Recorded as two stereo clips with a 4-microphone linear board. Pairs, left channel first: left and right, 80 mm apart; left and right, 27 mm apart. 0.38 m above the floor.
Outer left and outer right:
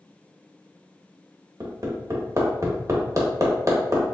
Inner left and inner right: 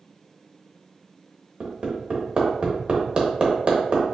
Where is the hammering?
45° right (ahead or behind), 1.1 m.